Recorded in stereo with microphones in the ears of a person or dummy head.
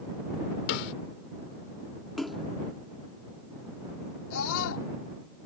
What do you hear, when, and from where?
0.7 s a snare drum: 60° left (ahead or behind)
2.2 s a splash: centre (ahead or behind)
4.3 s a scream: 75° left (ahead or behind)